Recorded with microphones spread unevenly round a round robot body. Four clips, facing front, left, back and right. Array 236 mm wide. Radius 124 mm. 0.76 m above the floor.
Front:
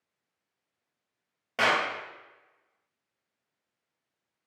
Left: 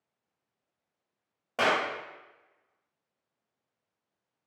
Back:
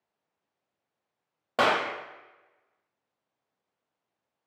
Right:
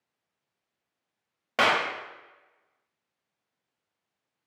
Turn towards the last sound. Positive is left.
turn(degrees=-145)